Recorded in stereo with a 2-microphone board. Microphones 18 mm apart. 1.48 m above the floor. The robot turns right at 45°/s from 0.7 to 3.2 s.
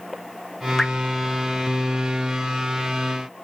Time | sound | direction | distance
0.8 | dripping | 30° left (ahead or behind) | 0.7 m